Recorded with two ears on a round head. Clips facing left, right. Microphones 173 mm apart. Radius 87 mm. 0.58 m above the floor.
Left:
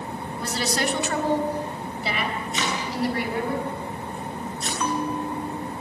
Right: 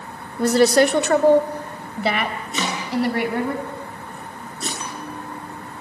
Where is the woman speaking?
45° right (ahead or behind), 1.5 m; by 3.5 s 55° right (ahead or behind), 5 m.